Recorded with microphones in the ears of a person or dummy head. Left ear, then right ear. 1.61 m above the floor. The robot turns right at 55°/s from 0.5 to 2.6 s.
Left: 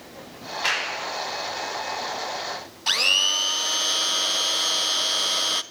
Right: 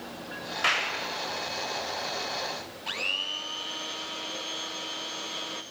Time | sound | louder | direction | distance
0.6 | a clap | left 1 dB | 40° right (ahead or behind) | 7.5 m
2.9 | a blender | left 11 dB | 35° left (ahead or behind) | 0.8 m